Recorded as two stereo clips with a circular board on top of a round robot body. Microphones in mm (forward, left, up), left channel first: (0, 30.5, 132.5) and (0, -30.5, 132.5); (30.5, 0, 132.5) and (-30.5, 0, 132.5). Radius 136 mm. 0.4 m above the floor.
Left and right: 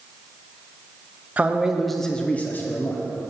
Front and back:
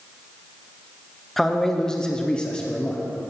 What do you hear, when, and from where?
1.4 s a man speaking: 80° right, 0.8 m; by 3.0 s 65° left, 1.0 m